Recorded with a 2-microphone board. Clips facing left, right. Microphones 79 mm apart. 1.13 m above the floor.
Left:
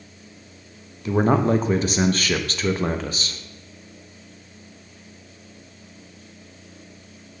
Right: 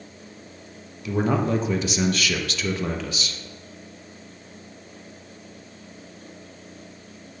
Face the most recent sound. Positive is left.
turn(degrees=40)  # may be behind; listen again after turning